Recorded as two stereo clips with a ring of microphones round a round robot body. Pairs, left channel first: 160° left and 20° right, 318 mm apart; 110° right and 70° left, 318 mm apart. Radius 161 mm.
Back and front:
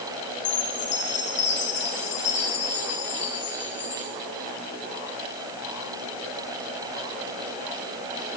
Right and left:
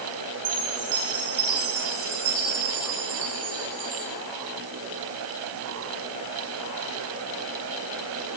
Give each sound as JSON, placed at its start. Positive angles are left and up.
{"t": 0.5, "sound": "a chime", "azimuth_deg": 100, "distance_m": 7.0}